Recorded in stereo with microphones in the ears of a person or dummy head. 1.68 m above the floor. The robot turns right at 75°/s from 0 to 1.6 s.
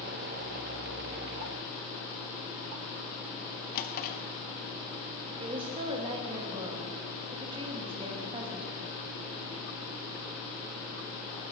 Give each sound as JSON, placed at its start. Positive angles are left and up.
{"t": 3.8, "sound": "a drawer", "side_deg": 50, "distance_m": 1.7}
{"t": 5.4, "sound": "a woman speaking", "side_deg": -30, "distance_m": 2.5}